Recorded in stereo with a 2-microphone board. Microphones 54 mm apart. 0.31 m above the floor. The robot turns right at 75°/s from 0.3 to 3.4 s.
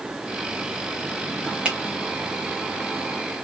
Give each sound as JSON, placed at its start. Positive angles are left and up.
{"t": 1.6, "sound": "a finger snap", "side_deg": -20, "distance_m": 0.8}